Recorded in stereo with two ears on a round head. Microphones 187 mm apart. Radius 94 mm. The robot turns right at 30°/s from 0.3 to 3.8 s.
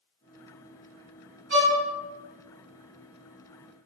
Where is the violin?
55° right (ahead or behind), 2.0 m; by 1.8 s 45° right (ahead or behind), 2.0 m.